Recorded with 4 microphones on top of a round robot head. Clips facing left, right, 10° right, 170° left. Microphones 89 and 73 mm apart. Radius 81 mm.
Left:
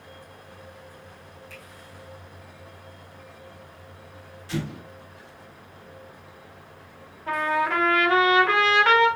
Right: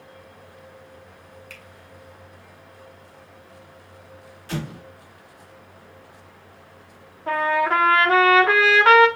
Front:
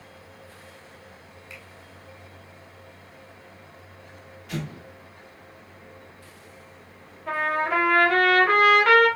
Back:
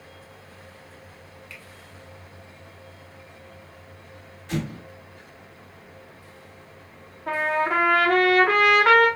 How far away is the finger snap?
About 1.6 m.